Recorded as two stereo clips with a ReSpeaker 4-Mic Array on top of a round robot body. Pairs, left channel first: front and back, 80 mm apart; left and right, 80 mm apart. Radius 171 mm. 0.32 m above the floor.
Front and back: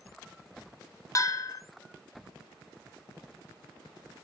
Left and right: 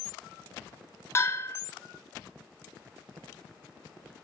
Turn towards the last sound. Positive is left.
turn(degrees=40)